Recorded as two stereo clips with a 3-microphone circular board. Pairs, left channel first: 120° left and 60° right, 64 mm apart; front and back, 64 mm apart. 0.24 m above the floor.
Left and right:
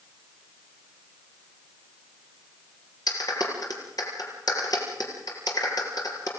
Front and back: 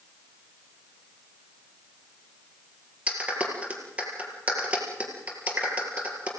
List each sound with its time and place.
3.1 s a clap: 110° left, 4.5 m